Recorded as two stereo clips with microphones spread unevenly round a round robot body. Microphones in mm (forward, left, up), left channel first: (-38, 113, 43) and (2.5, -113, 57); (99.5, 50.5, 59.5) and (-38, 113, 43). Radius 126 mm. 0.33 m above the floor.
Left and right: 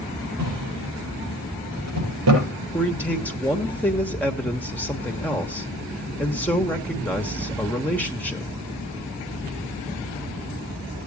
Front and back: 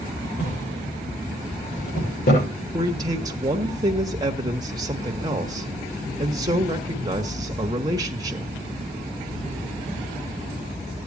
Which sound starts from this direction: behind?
A man speaking, at 2.7 s.